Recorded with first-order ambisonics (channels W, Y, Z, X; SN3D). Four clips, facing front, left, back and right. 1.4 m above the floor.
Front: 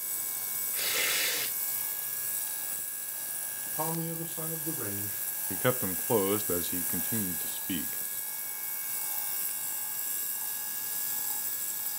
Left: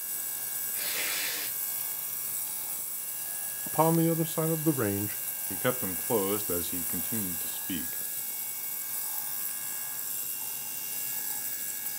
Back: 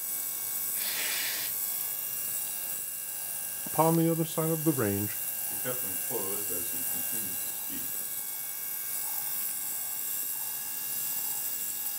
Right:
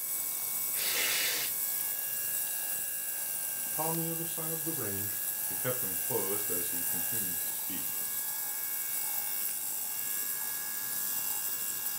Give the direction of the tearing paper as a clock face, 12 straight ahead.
1 o'clock.